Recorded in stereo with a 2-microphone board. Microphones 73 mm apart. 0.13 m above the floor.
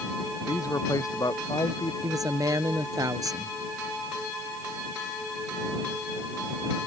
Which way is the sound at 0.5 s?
50° left (ahead or behind).